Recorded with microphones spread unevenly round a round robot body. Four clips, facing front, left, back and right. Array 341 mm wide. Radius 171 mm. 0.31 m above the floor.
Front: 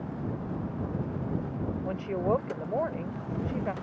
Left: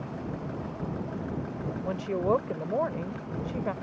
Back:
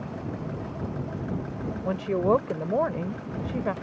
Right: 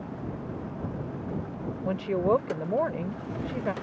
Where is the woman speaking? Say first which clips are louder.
Right 2 dB, back 6 dB; 150° right.